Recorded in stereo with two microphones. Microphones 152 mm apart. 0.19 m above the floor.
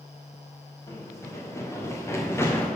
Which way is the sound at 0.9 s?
20° left (ahead or behind).